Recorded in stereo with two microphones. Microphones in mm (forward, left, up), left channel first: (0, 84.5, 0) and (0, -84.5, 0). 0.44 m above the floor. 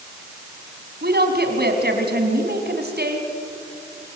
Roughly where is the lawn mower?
I don't hear a lawn mower.